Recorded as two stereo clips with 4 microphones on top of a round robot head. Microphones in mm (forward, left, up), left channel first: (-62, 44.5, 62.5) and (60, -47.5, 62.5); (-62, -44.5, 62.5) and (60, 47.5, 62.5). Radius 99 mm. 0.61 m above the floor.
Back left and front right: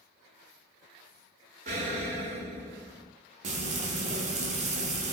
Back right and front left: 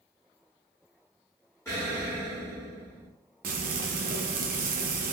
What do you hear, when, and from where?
1.6 s an explosion: 70° right, 1.5 m
3.4 s frying: 10° left, 0.6 m